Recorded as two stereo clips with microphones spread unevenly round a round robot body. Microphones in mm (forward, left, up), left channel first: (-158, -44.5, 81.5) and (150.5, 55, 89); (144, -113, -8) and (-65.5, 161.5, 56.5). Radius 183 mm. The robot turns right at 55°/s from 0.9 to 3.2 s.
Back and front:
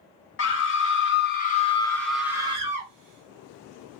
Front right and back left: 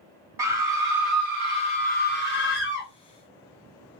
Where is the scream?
140° right, 1.1 m; by 2.9 s 30° right, 1.1 m.